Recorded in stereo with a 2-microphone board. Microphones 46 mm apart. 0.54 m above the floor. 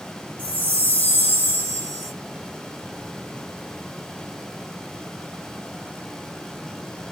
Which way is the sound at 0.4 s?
40° left (ahead or behind).